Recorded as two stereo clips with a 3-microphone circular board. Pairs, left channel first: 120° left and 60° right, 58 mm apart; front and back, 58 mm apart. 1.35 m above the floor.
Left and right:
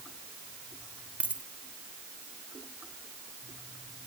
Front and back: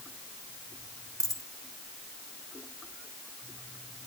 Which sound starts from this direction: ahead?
A dropped coin, at 1.2 s.